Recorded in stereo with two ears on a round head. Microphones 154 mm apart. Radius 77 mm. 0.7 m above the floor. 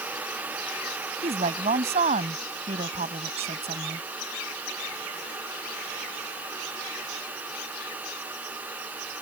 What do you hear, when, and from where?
1.2 s a woman speaking: 35° right (ahead or behind)